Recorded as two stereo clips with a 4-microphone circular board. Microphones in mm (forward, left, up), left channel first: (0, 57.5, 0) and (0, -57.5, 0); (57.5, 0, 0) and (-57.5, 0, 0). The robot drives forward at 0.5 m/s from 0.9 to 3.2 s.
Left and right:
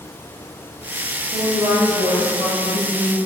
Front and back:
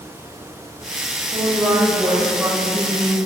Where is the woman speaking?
135° right, 3.5 m; by 3.1 s 145° right, 4 m.